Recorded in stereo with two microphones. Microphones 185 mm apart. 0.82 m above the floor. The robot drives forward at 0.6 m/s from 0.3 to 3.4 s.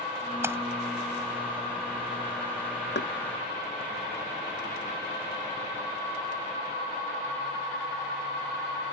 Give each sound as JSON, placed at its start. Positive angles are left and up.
{"t": 0.4, "sound": "a splash", "side_deg": -10}
{"t": 3.0, "sound": "knocking", "side_deg": 65}